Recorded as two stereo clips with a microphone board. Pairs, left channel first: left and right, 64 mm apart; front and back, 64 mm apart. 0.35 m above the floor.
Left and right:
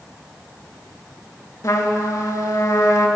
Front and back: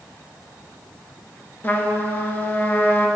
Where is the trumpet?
60° left, 0.7 m.